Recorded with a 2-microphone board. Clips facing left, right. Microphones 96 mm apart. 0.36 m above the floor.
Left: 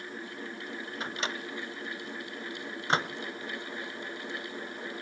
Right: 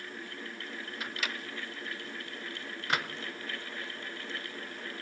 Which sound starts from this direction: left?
A microwave, at 1.0 s.